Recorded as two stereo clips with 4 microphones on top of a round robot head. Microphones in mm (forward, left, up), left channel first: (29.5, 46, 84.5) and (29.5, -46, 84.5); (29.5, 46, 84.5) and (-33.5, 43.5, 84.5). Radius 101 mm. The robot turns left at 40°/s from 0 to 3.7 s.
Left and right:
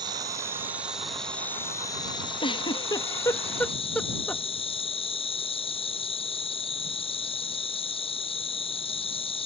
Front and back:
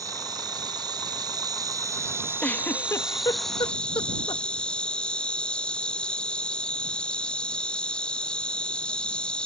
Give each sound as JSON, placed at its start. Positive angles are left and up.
{"t": 0.0, "sound": "an insect", "azimuth_deg": -135}
{"t": 2.4, "sound": "a giggle", "azimuth_deg": 65}